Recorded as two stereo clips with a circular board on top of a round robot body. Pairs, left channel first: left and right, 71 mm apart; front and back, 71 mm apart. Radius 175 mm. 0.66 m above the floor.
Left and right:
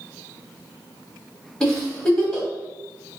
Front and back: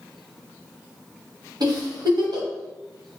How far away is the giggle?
About 1.1 m.